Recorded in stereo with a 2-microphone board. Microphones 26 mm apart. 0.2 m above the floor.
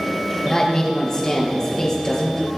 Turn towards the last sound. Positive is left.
turn(degrees=25)  # may be behind; listen again after turning